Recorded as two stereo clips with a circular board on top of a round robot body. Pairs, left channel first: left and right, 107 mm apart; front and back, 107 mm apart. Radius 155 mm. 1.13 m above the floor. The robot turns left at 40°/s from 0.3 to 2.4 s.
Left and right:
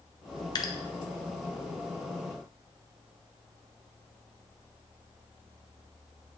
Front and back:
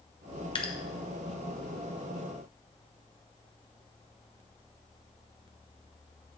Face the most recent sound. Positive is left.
turn(degrees=-35)